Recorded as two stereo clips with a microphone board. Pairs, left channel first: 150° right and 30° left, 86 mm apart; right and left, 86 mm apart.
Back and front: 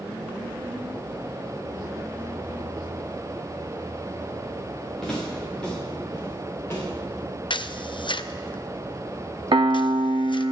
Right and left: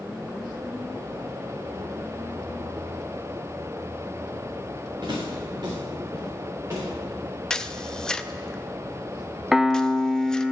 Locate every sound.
5.0 s footsteps: 125° left, 6.5 m; by 6.9 s 150° left, 5 m
7.5 s a camera shutter: 170° right, 0.5 m
9.5 s a piano: 5° left, 0.6 m